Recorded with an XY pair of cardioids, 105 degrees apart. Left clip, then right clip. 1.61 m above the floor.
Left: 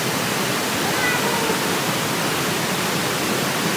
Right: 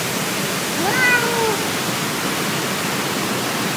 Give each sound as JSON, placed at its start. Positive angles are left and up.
{"t": 0.8, "sound": "a cat meowing", "azimuth_deg": -55, "distance_m": 3.0}